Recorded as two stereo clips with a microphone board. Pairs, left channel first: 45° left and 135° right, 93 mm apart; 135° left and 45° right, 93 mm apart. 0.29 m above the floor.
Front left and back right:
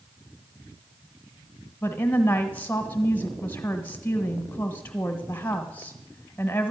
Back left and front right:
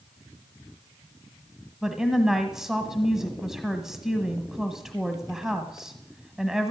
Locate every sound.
1.8 s a woman speaking: 30° left, 1.2 m